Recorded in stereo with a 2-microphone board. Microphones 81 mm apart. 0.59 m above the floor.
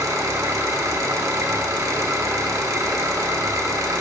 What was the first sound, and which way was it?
An engine running, 40° right (ahead or behind).